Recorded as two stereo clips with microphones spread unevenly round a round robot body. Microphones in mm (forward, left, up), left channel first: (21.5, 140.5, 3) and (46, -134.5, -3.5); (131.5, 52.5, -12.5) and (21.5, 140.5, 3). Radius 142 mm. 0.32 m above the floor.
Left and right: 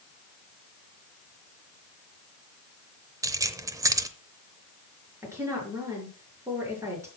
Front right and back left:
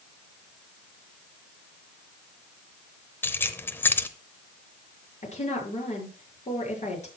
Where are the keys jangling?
35° right, 0.6 m.